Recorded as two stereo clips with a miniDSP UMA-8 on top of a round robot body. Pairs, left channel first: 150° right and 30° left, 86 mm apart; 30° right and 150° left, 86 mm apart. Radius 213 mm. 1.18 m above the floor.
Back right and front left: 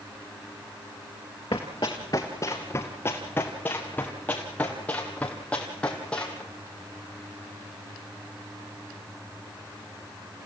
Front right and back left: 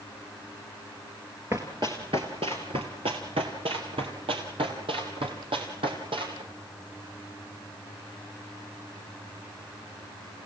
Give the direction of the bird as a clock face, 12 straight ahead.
No bird in this recording.